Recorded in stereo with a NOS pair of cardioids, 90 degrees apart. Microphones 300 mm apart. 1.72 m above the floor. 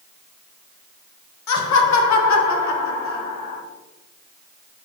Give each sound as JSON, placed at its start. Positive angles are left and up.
{"t": 1.5, "sound": "laughter", "azimuth_deg": 70, "distance_m": 1.0}